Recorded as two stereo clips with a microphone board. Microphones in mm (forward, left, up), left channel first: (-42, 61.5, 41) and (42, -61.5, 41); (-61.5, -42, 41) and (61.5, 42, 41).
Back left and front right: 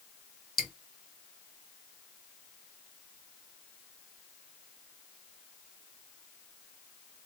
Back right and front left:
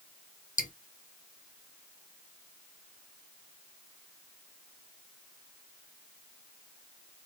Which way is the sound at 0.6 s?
150° right.